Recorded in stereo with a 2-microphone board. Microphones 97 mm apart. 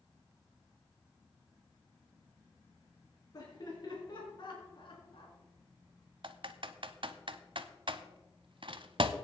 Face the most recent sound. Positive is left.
turn(degrees=-60)  # may be behind; listen again after turning